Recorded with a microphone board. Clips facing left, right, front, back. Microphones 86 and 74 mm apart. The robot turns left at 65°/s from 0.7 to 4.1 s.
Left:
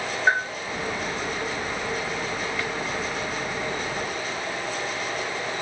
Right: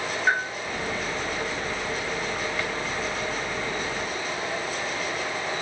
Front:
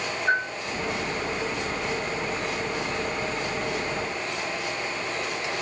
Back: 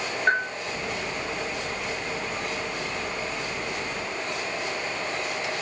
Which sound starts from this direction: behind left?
A bell, at 0.3 s.